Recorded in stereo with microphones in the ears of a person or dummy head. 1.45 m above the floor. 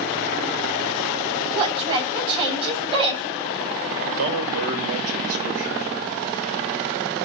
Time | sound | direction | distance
1.5 | a woman speaking | 30° right (ahead or behind) | 9 m
4.2 | a man speaking | 75° right (ahead or behind) | 6 m